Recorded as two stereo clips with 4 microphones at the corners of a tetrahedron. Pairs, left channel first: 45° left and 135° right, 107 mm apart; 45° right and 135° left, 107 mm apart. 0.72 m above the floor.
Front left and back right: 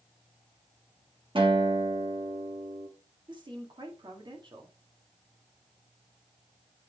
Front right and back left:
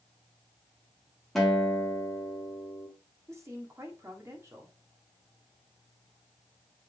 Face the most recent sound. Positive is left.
turn(degrees=-170)